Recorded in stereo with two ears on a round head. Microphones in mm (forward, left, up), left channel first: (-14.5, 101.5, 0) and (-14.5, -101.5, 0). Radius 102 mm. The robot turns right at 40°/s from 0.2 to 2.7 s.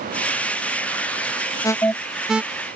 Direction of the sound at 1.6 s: 15° left (ahead or behind).